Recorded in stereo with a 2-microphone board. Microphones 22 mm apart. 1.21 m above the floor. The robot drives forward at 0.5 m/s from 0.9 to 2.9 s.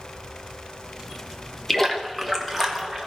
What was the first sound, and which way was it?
A splash, 15° left (ahead or behind).